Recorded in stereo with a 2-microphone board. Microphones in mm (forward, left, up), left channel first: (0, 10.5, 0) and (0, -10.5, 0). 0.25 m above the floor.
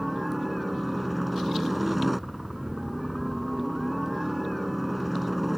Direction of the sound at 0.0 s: 5° right (ahead or behind).